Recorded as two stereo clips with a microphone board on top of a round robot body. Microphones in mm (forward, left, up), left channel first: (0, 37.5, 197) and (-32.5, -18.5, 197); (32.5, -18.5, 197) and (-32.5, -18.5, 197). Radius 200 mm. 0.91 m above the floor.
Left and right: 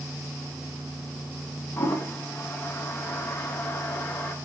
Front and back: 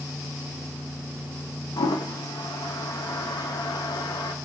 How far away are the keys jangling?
No keys jangling in this recording.